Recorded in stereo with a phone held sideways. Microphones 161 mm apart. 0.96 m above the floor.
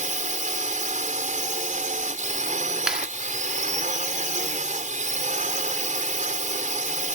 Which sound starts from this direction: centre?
A clap, at 2.9 s.